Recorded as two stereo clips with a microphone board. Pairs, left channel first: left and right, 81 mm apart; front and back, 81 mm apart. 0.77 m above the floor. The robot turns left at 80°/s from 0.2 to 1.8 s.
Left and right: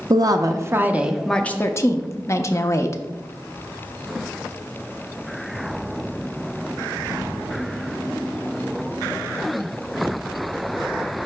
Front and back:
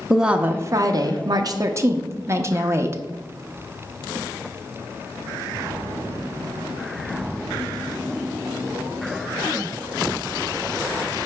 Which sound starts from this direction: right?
A woman speaking, at 0.1 s.